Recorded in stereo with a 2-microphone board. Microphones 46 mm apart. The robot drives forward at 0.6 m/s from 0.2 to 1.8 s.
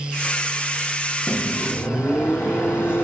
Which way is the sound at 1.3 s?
60° left (ahead or behind).